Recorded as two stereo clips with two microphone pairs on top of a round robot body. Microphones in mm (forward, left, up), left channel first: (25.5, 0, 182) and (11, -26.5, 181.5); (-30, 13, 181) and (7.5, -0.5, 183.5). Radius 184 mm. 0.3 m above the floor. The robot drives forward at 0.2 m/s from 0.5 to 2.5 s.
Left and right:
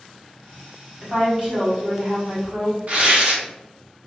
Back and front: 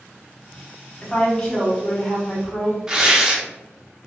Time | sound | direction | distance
1.0 | a woman speaking | 150° right | 1.7 m
2.9 | tearing paper | 95° right | 0.9 m